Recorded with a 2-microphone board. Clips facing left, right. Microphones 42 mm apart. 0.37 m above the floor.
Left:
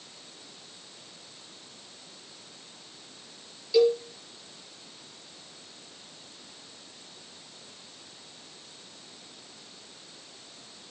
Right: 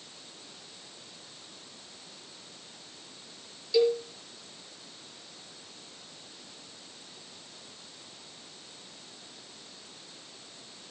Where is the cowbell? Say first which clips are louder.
Left 3 dB; centre (ahead or behind), 6 m.